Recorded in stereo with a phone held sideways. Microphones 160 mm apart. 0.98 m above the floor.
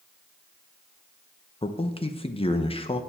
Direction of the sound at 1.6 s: 35° left (ahead or behind).